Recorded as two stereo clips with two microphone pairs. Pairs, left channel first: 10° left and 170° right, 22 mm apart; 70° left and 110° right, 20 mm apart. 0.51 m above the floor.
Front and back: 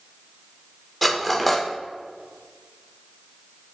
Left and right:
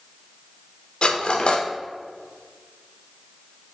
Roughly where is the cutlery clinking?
Left.